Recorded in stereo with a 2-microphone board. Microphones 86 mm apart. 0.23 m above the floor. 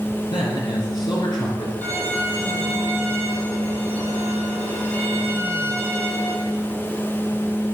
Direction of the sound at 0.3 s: 65° left (ahead or behind).